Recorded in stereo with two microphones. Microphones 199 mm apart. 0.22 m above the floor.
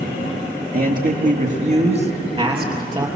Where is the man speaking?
50° right (ahead or behind), 3.5 m; by 3.1 s 20° right (ahead or behind), 4.5 m.